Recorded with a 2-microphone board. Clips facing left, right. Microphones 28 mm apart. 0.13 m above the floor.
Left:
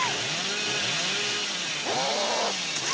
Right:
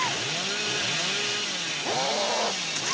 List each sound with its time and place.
Only background noise.